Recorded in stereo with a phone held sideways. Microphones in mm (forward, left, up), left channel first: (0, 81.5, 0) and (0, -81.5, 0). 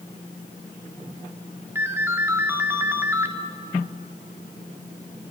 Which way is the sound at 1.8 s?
15° right (ahead or behind).